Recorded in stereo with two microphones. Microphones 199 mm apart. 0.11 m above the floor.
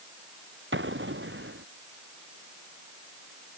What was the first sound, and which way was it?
An explosion, 75° right (ahead or behind).